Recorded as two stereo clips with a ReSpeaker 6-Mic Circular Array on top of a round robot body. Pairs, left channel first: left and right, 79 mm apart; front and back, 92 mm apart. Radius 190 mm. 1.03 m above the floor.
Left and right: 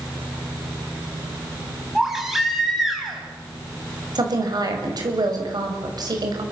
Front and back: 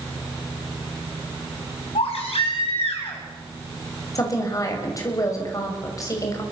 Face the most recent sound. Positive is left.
turn(degrees=-55)